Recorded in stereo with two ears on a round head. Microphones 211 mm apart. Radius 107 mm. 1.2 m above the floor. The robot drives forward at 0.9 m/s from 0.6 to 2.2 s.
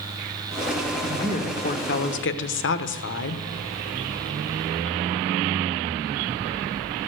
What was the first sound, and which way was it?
A woman speaking, 25° left (ahead or behind).